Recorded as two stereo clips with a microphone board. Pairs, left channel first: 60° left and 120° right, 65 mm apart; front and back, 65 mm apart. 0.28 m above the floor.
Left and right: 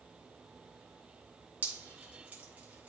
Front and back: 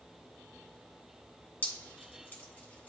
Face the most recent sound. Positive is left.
turn(degrees=-55)